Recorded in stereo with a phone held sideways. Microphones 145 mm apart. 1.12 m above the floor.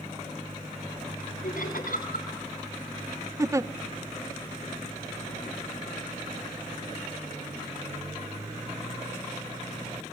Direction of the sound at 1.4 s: 75° left (ahead or behind).